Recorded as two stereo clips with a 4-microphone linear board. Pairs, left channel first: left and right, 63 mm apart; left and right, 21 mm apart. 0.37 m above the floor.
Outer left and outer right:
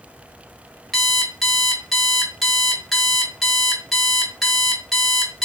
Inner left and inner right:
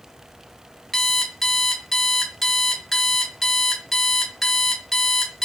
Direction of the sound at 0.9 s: Centre (ahead or behind).